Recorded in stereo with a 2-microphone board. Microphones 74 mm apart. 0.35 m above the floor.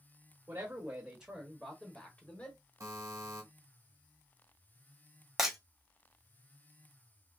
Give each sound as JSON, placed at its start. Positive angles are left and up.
{"t": 0.5, "sound": "a man speaking", "side_deg": -30, "distance_m": 1.0}
{"t": 2.8, "sound": "a buzzer", "side_deg": -45, "distance_m": 1.2}
{"t": 5.4, "sound": "breaking glass", "side_deg": -5, "distance_m": 1.1}